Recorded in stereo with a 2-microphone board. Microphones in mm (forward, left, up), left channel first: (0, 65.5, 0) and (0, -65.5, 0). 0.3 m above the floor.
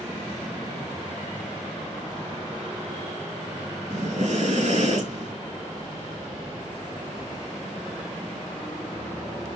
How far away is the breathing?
About 3.5 m.